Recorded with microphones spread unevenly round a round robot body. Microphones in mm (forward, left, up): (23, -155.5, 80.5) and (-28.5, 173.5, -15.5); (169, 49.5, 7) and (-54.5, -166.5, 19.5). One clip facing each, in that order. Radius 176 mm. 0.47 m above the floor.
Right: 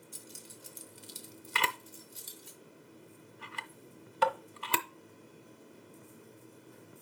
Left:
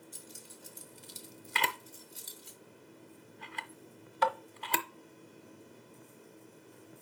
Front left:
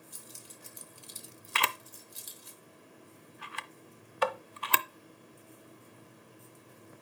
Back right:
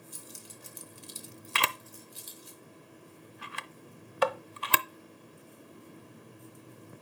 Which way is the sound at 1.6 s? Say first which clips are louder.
Even, back right 1 dB; 160° right.